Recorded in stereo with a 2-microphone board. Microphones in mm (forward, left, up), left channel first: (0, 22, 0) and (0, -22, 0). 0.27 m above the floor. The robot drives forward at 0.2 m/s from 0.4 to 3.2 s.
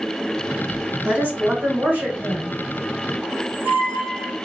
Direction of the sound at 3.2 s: 65° right (ahead or behind).